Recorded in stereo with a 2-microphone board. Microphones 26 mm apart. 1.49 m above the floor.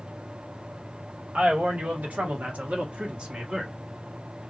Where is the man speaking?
75° right (ahead or behind), 1.7 m; by 3.7 s 30° right (ahead or behind), 1.1 m.